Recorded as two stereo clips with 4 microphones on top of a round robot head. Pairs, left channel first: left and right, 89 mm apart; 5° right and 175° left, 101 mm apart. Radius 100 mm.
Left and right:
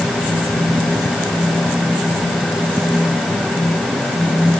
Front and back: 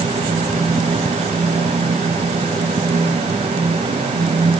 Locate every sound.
Only background noise.